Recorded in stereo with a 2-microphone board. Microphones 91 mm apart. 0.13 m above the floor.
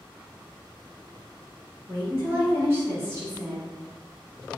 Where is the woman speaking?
25° right (ahead or behind), 1.8 m.